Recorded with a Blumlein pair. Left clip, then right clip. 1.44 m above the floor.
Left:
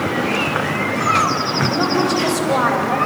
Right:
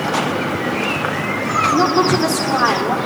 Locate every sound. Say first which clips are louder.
1.7 s a woman speaking: right 5 dB; 45° right, 5 m